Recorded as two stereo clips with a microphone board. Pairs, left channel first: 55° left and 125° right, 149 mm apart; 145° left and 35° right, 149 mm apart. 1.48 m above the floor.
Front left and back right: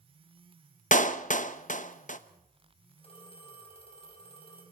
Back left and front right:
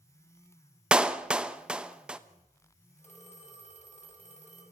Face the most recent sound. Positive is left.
turn(degrees=105)